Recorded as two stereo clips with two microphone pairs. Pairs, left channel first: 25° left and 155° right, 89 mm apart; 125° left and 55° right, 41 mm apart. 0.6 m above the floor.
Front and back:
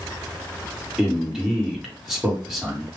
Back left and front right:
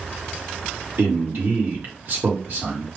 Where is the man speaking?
70° right, 1.4 m.